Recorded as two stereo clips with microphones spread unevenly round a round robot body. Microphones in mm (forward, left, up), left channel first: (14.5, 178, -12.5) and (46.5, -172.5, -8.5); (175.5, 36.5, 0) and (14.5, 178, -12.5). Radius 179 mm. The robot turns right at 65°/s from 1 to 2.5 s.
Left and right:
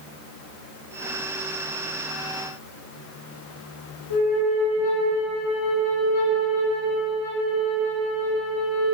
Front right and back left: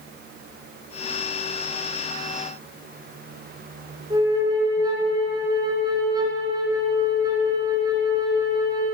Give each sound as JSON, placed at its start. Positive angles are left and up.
{"t": 4.1, "sound": "a flute", "azimuth_deg": 65, "distance_m": 2.5}